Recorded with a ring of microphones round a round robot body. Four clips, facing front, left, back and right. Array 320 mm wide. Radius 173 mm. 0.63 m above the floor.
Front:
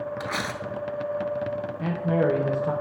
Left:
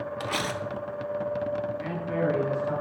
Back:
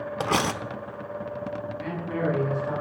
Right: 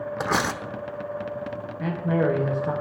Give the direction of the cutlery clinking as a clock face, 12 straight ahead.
5 o'clock.